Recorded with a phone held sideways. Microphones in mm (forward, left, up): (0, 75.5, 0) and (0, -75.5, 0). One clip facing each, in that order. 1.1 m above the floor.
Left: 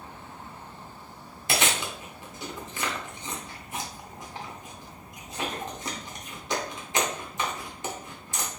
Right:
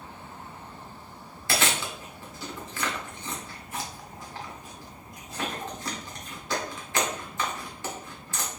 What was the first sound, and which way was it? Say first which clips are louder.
Chewing: even; 20° left (ahead or behind).